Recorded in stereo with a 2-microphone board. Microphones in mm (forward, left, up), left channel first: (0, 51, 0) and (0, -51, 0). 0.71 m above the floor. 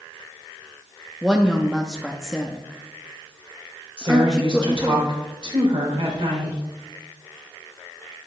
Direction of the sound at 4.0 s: 55° right (ahead or behind).